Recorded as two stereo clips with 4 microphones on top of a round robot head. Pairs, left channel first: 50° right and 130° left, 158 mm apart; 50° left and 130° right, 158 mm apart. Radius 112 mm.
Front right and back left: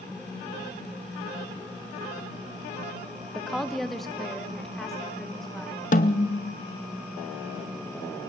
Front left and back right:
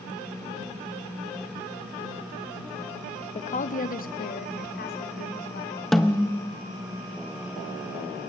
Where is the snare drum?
35° right, 0.6 m.